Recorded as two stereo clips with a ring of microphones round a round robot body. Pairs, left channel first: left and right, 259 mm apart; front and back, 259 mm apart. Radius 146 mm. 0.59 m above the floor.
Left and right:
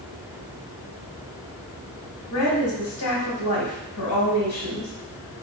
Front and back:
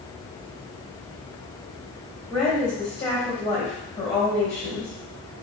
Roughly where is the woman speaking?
Left.